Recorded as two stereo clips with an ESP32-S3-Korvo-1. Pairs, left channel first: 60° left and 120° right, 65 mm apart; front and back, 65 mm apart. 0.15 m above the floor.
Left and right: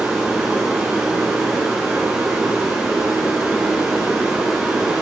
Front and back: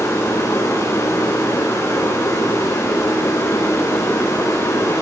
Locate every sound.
0.0 s running water: 40° right, 8 m